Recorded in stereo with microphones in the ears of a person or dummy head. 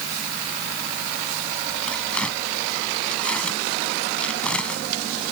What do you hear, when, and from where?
1.9 s tearing paper: 5° left (ahead or behind)